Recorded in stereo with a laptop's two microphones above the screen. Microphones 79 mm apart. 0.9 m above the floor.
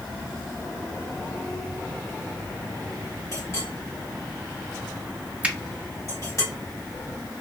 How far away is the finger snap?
About 0.6 m.